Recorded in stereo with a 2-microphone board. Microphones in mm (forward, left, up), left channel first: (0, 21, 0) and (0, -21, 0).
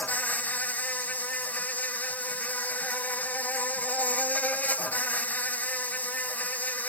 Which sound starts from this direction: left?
An insect, at 0.0 s.